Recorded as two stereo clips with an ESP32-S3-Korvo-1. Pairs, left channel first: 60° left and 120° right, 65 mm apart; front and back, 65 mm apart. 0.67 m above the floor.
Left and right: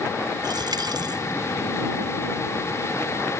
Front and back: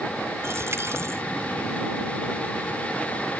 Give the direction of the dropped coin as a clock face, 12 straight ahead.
4 o'clock.